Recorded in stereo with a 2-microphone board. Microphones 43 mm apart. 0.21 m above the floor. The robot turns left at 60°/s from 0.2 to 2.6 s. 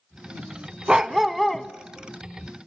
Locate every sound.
0.9 s a dog barking: 150° right, 0.6 m; by 1.7 s 160° left, 0.6 m